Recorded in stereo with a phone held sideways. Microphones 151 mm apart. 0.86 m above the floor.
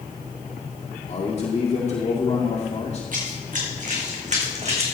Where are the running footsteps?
60° right (ahead or behind), 3.5 m; by 4.8 s 45° right (ahead or behind), 3 m.